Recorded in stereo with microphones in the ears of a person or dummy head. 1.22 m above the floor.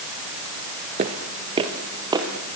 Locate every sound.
1.0 s footsteps: 30° right (ahead or behind), 1.4 m; by 2.6 s 15° right (ahead or behind), 2.5 m